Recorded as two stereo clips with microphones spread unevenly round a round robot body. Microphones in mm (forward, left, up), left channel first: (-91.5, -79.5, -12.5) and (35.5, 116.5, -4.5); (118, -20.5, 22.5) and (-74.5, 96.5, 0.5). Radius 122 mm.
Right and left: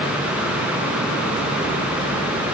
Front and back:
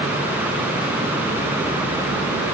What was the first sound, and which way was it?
Only background noise.